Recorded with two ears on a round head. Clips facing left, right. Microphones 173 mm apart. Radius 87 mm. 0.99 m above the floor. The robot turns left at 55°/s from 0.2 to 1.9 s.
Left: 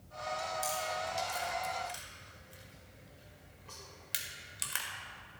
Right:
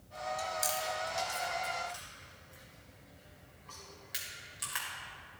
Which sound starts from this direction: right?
Chewing, at 0.4 s.